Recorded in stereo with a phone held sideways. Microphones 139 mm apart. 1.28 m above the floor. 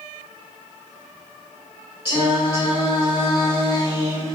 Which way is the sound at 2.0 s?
40° left (ahead or behind).